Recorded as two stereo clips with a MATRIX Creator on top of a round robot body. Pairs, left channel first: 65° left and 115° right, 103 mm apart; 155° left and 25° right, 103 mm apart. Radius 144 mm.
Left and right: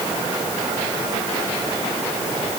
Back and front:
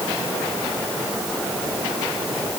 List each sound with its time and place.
Only background noise.